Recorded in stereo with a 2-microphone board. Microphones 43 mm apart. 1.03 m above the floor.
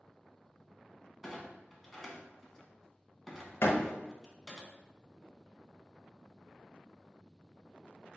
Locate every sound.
1.2 s a clunk: 5° right (ahead or behind), 1.0 m
3.6 s a door slam: 70° left (ahead or behind), 0.7 m